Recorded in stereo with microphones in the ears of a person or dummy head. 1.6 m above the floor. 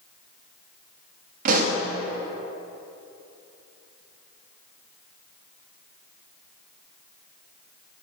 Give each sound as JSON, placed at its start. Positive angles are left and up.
{"t": 1.4, "sound": "a pop", "side_deg": -45, "distance_m": 0.7}